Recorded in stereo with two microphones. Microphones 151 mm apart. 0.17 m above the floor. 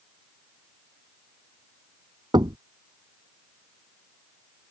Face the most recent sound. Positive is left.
turn(degrees=-30)  # may be behind; listen again after turning